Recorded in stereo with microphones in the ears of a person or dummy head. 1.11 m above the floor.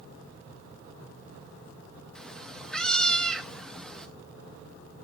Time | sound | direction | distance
2.1 | a cat meowing | centre (ahead or behind) | 0.5 m